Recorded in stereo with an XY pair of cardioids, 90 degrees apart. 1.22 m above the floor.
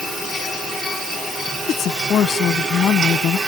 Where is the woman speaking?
70° left.